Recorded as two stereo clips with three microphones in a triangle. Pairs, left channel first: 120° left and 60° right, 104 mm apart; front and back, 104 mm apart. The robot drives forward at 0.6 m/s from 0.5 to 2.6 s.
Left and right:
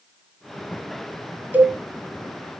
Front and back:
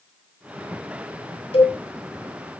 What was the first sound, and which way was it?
A cowbell, 10° left.